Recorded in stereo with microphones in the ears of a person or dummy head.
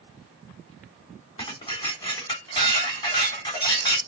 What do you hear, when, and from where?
1.4 s dishes clattering: 25° left (ahead or behind), 2.5 m